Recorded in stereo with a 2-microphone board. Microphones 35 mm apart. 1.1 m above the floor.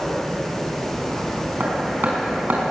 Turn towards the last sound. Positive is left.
turn(degrees=-65)  # may be behind; listen again after turning